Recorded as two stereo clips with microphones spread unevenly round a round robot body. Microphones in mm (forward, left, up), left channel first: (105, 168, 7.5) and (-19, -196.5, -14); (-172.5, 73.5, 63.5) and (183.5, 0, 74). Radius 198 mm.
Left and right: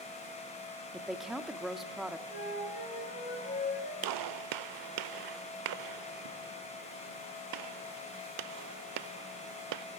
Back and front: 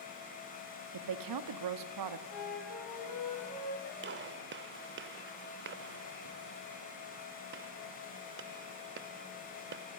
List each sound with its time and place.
0.9 s a woman speaking: 20° right, 1.3 m
2.3 s a flute: 140° left, 9.5 m
4.0 s a gunshot: 70° right, 0.6 m